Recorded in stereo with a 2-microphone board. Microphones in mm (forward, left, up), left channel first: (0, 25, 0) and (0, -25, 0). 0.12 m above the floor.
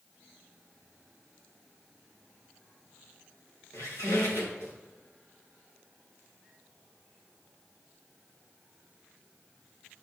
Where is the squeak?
90° left, 3.5 m.